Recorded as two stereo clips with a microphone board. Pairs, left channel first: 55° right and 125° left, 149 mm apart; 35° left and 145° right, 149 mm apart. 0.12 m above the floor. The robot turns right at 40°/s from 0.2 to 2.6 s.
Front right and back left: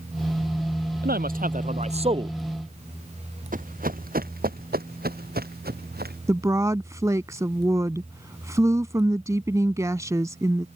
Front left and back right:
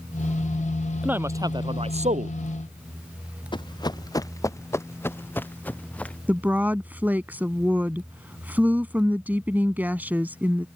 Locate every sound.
1.0 s a man speaking: 135° left; by 2.4 s 175° right
3.5 s running footsteps: 95° left; by 6.2 s 115° left
6.3 s a woman speaking: 155° left